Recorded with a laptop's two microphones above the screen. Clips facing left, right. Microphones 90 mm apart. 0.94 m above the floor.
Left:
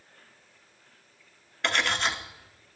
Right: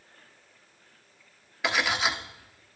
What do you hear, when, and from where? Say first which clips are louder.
1.6 s cutlery clinking: right 1 dB; 5° right (ahead or behind), 1.1 m